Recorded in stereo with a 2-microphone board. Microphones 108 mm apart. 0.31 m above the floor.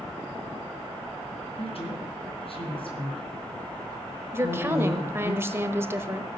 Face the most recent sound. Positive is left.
turn(degrees=-20)  # may be behind; listen again after turning